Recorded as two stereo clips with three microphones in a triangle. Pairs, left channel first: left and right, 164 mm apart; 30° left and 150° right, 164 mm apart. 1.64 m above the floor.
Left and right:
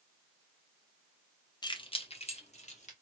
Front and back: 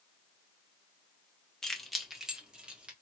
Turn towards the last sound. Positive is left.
turn(degrees=130)